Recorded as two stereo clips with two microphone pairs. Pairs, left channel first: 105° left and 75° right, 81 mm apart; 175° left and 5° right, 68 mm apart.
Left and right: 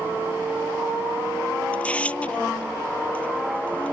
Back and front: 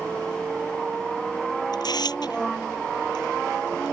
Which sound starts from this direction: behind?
Tearing paper, at 1.7 s.